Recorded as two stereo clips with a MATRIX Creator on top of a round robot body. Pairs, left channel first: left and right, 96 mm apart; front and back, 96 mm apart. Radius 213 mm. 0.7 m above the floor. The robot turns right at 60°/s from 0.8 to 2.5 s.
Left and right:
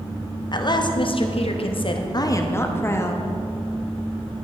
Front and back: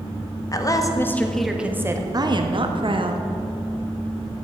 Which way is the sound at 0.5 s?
50° left.